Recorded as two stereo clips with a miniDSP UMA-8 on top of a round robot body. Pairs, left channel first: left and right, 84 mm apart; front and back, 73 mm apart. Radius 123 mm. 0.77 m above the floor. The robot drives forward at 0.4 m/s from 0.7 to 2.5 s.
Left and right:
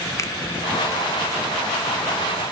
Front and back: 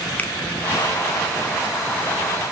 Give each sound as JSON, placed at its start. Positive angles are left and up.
{"t": 0.2, "sound": "a finger snap", "azimuth_deg": 55, "distance_m": 0.9}